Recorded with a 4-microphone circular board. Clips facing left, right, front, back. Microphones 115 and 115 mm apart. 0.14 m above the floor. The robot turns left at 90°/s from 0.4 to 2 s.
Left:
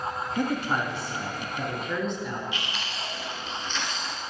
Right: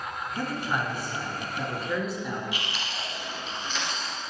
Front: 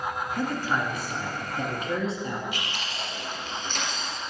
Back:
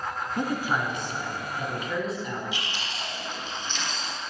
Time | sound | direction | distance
0.4 | a man speaking | 135° left | 1.3 m
2.5 | chewing | 5° right | 1.9 m